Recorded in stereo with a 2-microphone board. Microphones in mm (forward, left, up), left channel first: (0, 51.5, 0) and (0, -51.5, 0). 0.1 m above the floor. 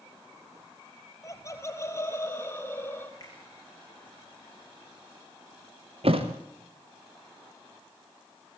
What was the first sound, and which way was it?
Laughter, 30° left (ahead or behind).